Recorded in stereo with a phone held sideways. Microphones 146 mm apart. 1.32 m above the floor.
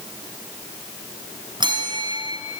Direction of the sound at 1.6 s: 30° right (ahead or behind).